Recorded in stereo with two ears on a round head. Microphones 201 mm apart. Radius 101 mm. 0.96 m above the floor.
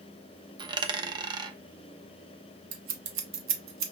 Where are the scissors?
85° right, 0.9 m.